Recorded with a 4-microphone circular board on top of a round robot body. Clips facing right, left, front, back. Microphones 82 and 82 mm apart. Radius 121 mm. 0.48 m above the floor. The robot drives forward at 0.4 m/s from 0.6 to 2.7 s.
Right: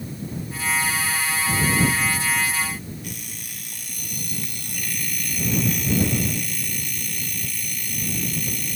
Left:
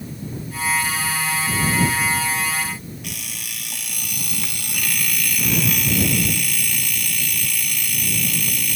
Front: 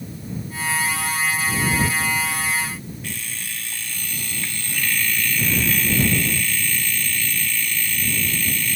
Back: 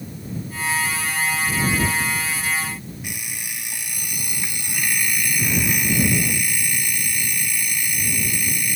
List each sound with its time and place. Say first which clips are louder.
3.0 s an alarm clock: left 2 dB, front 1 dB; 105° left